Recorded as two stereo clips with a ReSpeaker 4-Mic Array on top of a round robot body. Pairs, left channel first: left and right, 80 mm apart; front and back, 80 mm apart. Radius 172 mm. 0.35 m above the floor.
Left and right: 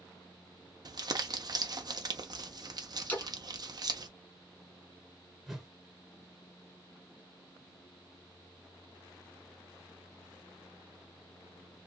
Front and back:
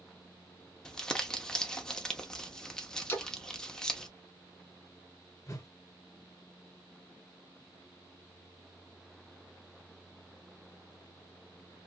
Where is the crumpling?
80° right, 0.8 m.